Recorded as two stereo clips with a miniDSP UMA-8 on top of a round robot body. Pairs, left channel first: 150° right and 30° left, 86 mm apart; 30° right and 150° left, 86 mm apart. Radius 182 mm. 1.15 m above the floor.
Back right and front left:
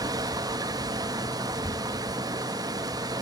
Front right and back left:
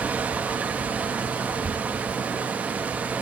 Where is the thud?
140° left, 2 m.